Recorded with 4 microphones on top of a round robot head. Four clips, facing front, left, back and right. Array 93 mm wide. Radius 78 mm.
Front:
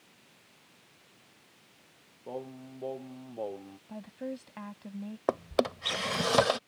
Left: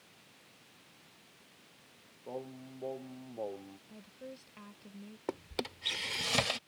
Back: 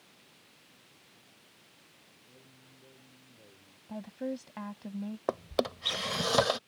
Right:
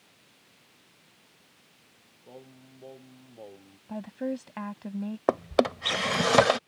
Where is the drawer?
80° right.